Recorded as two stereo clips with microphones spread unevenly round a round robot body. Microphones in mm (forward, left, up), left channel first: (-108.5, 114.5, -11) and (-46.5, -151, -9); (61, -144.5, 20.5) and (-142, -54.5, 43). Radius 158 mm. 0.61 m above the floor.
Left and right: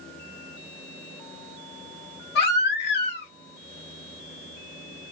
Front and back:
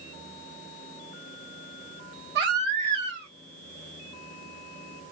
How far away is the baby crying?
About 0.9 m.